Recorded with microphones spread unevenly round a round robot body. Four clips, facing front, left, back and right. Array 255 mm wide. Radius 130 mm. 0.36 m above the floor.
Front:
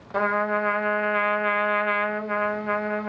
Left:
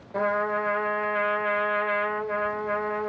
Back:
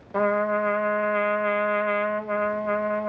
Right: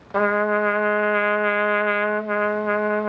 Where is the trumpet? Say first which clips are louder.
Right 6 dB, back 1 dB; 70° right, 0.8 m.